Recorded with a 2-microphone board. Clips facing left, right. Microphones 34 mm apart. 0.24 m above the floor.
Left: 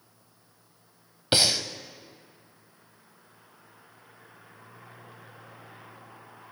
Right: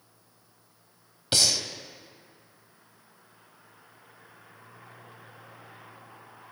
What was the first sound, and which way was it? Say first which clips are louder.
Breathing: left 2 dB; 25° left (ahead or behind).